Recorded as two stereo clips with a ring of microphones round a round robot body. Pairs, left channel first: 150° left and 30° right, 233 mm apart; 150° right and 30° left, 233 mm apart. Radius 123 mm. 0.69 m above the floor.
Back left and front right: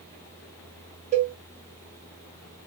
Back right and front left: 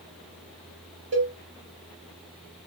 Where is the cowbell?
20° left, 1.1 m.